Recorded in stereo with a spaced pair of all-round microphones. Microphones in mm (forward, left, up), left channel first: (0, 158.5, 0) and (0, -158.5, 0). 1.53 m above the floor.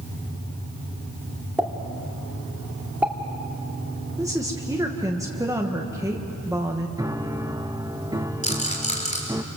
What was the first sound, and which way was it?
A pop, 5° right (ahead or behind).